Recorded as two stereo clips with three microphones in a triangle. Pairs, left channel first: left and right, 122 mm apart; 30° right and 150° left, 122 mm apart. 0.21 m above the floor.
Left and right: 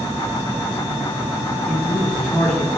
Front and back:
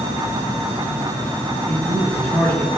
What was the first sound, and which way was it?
A man speaking, 15° left.